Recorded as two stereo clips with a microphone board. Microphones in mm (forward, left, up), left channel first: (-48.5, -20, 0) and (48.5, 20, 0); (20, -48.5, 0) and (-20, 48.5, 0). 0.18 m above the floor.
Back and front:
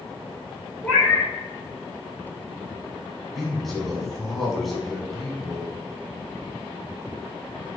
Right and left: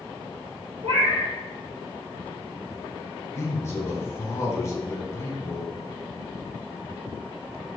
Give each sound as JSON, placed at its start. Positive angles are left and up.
{"t": 0.8, "sound": "a cat meowing", "azimuth_deg": 130, "distance_m": 1.4}
{"t": 3.4, "sound": "a man speaking", "azimuth_deg": -70, "distance_m": 1.2}